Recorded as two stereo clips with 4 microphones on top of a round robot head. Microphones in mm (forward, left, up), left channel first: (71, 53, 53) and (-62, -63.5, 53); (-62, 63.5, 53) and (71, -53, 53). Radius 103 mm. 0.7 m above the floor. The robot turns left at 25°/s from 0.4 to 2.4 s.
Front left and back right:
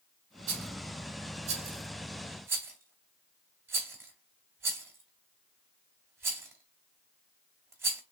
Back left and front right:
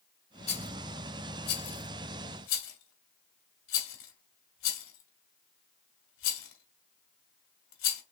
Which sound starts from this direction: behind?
A rattle, at 0.5 s.